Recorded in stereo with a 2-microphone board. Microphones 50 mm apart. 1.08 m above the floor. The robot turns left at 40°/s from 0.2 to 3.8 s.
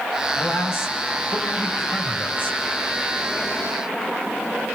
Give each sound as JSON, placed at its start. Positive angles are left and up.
{"t": 0.3, "sound": "a man speaking", "azimuth_deg": 135, "distance_m": 6.5}